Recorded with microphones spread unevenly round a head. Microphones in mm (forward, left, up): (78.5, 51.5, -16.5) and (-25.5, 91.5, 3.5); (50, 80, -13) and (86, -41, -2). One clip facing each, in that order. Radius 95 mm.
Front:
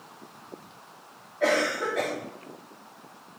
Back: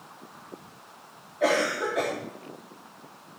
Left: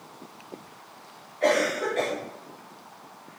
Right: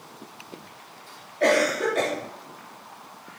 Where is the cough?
120° right, 3.5 m.